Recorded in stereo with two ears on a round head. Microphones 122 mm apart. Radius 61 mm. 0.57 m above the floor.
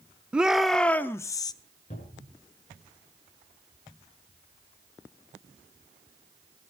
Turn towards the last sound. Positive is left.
turn(degrees=55)  # may be behind; listen again after turning